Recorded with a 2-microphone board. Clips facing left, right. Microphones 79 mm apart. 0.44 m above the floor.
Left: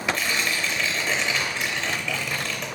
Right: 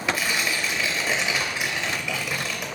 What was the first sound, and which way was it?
Tearing paper, 5° right (ahead or behind).